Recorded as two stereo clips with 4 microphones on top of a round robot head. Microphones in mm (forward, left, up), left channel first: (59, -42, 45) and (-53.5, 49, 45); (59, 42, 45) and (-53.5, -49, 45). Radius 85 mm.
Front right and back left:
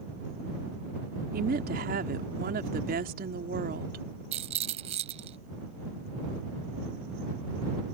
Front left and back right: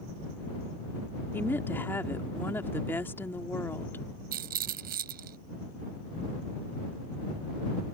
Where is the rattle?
170° right.